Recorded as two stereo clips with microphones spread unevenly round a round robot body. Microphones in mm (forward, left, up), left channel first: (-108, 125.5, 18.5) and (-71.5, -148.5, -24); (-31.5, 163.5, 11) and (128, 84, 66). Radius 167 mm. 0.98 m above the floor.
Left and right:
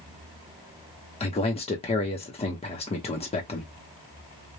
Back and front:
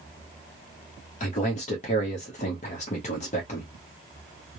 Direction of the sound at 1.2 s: 170° left.